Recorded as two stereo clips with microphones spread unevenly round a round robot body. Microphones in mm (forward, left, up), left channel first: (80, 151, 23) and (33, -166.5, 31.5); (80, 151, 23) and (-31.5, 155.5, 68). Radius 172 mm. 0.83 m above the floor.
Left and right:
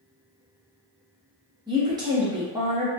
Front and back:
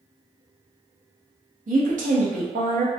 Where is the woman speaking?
175° right, 0.8 m.